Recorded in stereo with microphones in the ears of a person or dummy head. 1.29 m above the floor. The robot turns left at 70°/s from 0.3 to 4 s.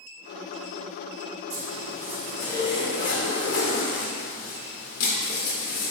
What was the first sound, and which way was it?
A zipper, 120° right.